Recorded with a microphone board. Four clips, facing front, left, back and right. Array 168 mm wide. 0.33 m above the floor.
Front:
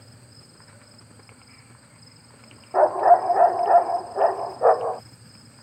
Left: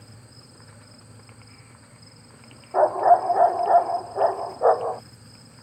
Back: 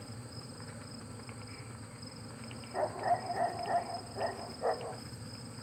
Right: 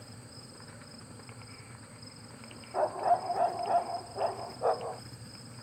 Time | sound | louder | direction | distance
2.7 | a dog barking | left 11 dB, front 17 dB | 40° left | ?